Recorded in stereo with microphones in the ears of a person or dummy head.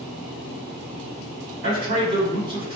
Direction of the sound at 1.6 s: 55° right (ahead or behind).